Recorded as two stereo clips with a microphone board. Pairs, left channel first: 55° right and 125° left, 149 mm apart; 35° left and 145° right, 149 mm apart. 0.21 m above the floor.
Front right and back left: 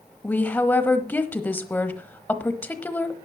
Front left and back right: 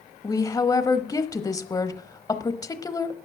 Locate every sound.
0.2 s a woman speaking: 5° left, 1.1 m